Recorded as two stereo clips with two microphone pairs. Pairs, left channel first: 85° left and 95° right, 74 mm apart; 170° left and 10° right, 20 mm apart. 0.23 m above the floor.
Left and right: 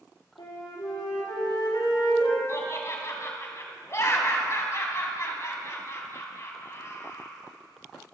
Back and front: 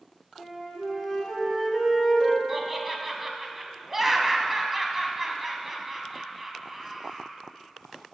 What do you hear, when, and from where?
0.4 s a flute: 85° left, 3 m
2.5 s laughter: 60° left, 1.7 m